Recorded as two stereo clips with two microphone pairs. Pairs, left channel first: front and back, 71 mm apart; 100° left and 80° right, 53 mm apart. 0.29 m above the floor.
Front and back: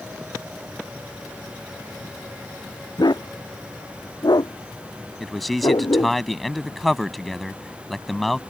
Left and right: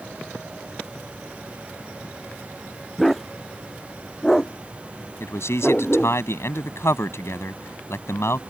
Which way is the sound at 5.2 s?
90° left.